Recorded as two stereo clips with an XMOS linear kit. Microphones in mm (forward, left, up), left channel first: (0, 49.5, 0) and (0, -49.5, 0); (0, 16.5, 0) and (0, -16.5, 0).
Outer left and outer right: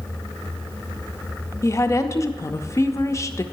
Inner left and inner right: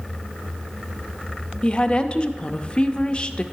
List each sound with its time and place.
1.6 s a woman speaking: 30° left (ahead or behind), 0.5 m